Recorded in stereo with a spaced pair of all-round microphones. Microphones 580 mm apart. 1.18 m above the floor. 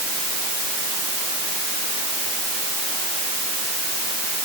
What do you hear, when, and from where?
Only background noise.